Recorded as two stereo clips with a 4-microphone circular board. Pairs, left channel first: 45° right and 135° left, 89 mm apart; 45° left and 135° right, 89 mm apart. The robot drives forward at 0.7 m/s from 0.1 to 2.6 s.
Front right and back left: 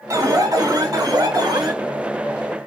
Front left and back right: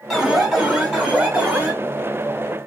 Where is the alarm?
140° left, 2 m; by 1.7 s 160° left, 3 m.